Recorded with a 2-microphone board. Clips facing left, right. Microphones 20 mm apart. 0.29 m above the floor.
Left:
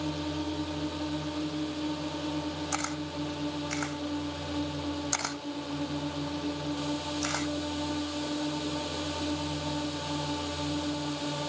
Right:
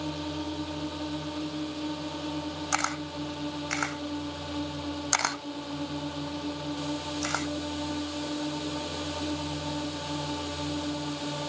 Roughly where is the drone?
Centre.